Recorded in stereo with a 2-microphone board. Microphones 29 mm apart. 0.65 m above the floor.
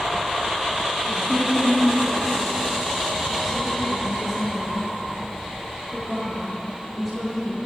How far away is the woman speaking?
About 9.5 m.